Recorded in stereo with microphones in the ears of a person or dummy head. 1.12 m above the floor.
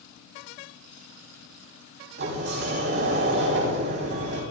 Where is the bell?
No bell in this recording.